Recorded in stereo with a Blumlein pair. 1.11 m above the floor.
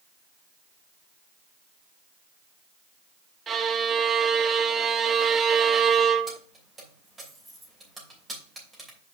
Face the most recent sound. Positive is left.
turn(degrees=-10)